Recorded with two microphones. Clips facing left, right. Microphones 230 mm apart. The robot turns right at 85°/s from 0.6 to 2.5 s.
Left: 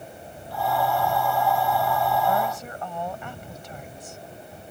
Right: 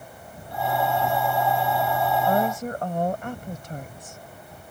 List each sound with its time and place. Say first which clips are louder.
2.2 s a woman speaking: right 3 dB; 35° right (ahead or behind); by 4.2 s 50° right (ahead or behind)